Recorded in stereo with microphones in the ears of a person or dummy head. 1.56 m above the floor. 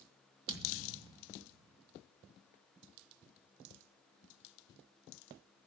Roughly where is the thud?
Right.